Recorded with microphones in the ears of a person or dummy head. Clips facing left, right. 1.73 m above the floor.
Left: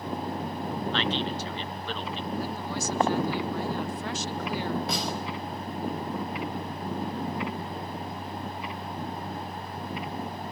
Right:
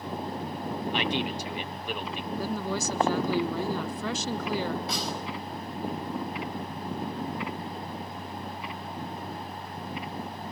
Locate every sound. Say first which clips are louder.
0.9 s a man speaking: right 1 dB; 15° right (ahead or behind), 1.2 m
2.4 s a woman speaking: right 2 dB; 70° right (ahead or behind), 0.7 m
4.9 s a snare drum: left 2 dB; 50° left (ahead or behind), 5 m